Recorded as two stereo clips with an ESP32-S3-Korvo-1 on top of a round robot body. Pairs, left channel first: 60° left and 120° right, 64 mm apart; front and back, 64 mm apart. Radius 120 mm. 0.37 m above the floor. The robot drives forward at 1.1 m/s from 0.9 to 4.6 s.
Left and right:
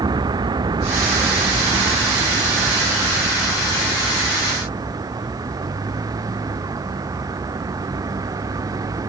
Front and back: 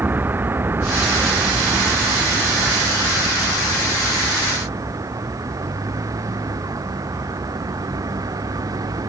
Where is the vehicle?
120° right; by 9.1 s 150° right.